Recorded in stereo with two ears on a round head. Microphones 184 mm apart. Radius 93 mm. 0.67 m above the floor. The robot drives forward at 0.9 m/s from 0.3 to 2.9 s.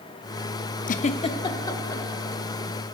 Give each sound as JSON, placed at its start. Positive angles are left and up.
{"t": 0.9, "sound": "a giggle", "side_deg": 40, "distance_m": 0.6}